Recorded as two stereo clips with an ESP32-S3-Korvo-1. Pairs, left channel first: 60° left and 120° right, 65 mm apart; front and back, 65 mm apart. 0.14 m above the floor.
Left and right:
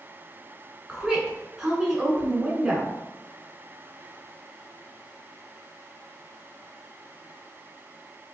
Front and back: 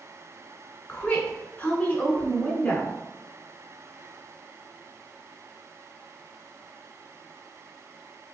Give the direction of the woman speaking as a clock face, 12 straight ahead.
1 o'clock.